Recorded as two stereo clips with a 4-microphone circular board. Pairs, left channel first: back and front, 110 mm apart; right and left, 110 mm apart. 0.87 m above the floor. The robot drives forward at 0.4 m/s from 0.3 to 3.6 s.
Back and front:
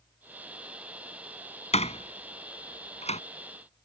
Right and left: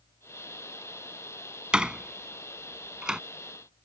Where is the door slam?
175° left.